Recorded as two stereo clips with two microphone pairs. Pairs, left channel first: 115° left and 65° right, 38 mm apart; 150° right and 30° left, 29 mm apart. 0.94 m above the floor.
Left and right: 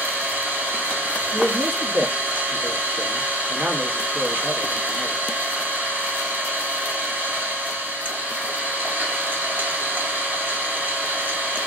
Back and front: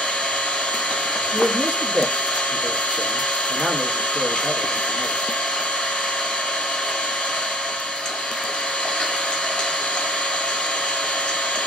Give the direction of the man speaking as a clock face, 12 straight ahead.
1 o'clock.